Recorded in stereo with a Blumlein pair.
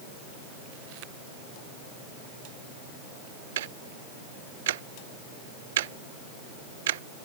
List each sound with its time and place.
3.6 s ticking: 55° right